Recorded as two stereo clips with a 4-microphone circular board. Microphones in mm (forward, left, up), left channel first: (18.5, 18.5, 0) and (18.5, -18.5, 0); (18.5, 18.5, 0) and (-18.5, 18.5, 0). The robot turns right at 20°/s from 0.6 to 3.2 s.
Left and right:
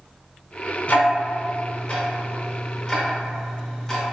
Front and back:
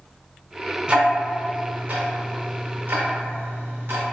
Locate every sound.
0.9 s ticking: 120° left, 0.6 m; by 4.0 s 165° left, 0.6 m